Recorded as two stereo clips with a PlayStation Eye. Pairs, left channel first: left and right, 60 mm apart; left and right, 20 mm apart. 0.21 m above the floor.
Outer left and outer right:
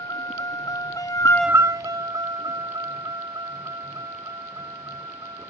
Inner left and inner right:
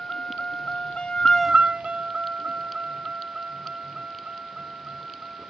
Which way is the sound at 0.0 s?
85° left.